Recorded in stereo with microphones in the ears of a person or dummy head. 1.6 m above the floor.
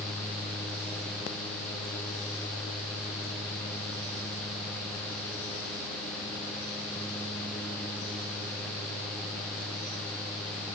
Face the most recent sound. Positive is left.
No sound to turn to.